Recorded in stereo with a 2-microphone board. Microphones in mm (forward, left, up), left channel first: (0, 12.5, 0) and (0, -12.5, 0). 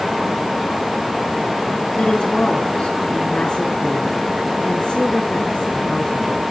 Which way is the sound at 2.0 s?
45° left (ahead or behind).